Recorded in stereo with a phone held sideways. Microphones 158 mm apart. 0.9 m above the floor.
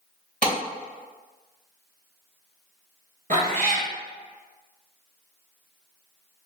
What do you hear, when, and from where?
0.4 s a clap: 70° right (ahead or behind), 1.8 m
3.3 s a cat meowing: 60° right (ahead or behind), 1.4 m